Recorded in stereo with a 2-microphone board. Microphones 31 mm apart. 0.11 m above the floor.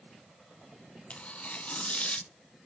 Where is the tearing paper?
40° left (ahead or behind), 0.8 m.